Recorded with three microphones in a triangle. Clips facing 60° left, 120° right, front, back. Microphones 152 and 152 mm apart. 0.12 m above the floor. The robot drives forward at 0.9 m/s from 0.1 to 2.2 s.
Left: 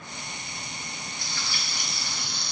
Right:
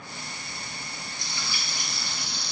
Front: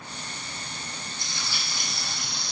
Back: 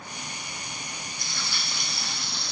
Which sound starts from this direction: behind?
Frying, at 1.2 s.